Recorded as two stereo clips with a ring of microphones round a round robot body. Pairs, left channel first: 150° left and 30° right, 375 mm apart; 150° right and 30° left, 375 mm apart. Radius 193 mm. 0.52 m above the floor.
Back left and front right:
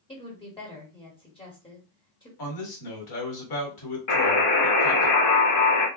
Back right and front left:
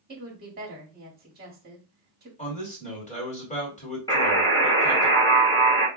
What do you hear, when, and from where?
0.1 s a woman speaking: 80° left, 1.6 m
2.4 s a man speaking: 140° left, 2 m
4.1 s a buzzer: 130° left, 1.7 m